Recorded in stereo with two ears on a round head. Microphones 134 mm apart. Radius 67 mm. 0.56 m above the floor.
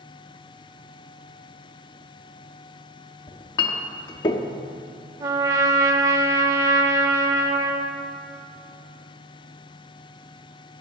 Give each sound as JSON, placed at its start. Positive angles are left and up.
{"t": 3.3, "sound": "a clink", "side_deg": 30, "distance_m": 0.6}
{"t": 5.2, "sound": "a trumpet", "side_deg": -20, "distance_m": 0.6}